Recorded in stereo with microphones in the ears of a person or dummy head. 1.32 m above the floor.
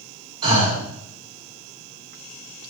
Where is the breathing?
30° right (ahead or behind), 3.5 m.